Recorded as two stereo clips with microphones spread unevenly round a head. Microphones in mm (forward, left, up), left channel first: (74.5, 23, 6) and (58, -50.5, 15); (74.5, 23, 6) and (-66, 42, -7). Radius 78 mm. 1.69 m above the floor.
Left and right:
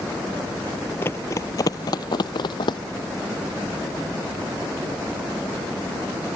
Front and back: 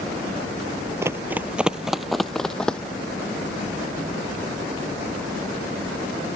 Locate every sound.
1.0 s running footsteps: 115° left; by 2.8 s 70° left